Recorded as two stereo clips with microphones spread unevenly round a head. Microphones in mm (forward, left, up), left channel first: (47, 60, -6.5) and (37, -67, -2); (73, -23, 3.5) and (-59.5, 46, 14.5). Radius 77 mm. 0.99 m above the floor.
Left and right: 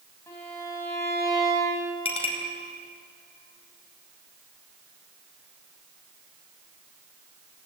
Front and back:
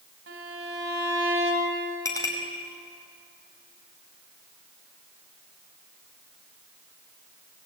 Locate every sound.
0.3 s a violin: 160° left, 5 m
2.0 s a clink: 40° left, 4.5 m